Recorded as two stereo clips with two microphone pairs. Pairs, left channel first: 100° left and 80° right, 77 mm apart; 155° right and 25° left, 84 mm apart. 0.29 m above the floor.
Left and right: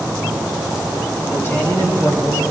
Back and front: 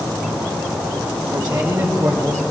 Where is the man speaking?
50° left, 3.5 m; by 2.4 s 75° left, 3 m.